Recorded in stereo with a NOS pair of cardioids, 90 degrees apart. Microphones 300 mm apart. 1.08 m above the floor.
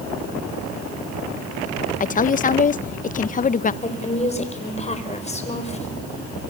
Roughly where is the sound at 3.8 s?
Ahead.